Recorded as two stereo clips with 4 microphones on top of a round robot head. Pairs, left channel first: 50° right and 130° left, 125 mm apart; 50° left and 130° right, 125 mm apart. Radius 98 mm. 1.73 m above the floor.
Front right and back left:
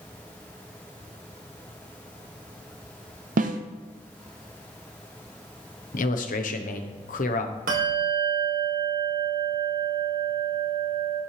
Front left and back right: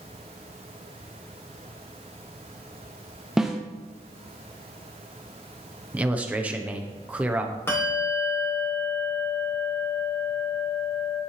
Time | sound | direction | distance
3.4 | a snare drum | 145° left | 0.7 m
5.9 | a man speaking | 50° right | 1.3 m
7.7 | a bell | 125° left | 3 m